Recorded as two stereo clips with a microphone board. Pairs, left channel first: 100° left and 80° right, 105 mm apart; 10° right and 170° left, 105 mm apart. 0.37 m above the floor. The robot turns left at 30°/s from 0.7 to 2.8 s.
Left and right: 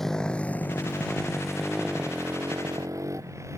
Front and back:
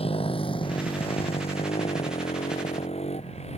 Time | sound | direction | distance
0.0 | a motorcycle | 15° left | ?